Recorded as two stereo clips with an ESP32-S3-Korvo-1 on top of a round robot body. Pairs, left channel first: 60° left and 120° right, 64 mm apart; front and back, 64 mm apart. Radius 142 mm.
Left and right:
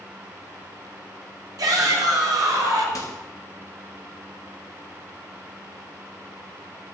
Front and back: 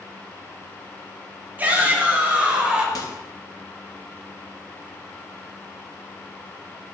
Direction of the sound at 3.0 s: 25° left.